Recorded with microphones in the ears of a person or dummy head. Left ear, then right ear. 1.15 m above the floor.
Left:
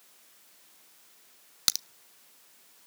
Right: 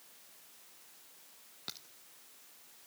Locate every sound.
1.7 s a crack: 70° left (ahead or behind), 0.6 m